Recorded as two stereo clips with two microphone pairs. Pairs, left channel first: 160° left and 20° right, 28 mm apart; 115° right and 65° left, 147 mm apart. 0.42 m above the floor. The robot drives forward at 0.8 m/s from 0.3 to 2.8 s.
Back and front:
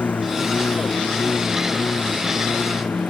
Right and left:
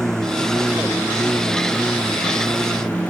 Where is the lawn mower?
160° left; by 3.1 s 165° left.